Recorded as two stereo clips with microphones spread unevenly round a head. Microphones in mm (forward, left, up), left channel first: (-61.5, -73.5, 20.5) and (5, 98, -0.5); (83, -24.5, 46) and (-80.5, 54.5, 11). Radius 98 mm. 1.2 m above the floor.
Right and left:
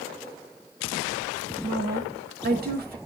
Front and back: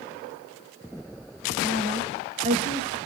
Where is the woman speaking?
105° left, 2 m.